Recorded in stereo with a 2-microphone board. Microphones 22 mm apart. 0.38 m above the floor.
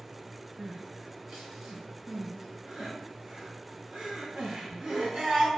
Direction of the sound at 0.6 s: 55° right (ahead or behind).